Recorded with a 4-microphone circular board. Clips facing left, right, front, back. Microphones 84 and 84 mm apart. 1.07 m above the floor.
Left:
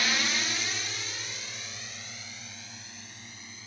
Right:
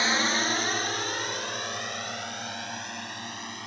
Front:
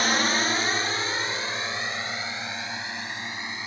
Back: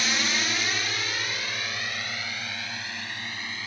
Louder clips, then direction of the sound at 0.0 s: Right 5 dB, front 5 dB; 35° right.